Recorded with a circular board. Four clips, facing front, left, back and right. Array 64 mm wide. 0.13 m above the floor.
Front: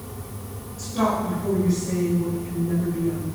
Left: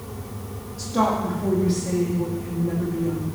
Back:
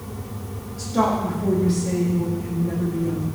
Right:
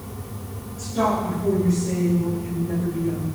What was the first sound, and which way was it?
A woman speaking, 130° left.